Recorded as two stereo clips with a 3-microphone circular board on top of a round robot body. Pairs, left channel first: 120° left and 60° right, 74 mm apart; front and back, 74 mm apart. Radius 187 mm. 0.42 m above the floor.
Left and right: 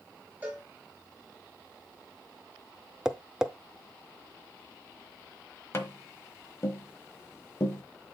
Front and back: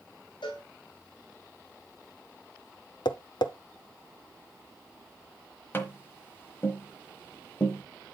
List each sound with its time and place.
0.4 s a cowbell: 10° left, 2.5 m
3.0 s tapping: 20° left, 0.7 m
5.7 s tapping: 60° left, 1.1 m